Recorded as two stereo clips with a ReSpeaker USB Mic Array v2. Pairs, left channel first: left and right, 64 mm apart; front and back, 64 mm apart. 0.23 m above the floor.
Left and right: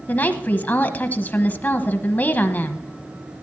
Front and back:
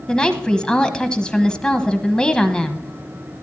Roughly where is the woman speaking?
Ahead left.